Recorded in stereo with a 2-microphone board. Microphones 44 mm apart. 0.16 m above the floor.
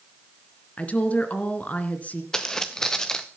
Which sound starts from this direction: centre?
Footsteps, at 2.3 s.